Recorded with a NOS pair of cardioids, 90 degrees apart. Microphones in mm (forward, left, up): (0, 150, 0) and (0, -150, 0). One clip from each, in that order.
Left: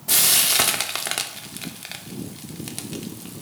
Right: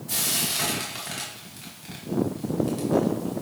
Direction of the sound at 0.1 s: 55° left.